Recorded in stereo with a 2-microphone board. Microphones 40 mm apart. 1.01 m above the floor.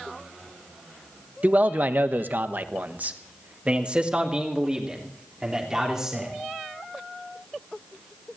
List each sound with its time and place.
1.4 s a man speaking: 45° right (ahead or behind), 1.1 m; by 6.3 s 15° right (ahead or behind), 3.5 m